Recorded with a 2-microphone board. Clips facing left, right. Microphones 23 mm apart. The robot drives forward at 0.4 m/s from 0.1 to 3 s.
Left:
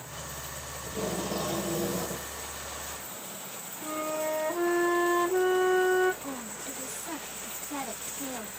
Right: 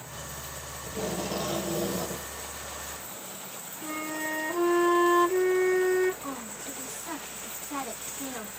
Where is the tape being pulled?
20° right (ahead or behind), 1.4 m; by 2.3 s 30° right (ahead or behind), 1.0 m.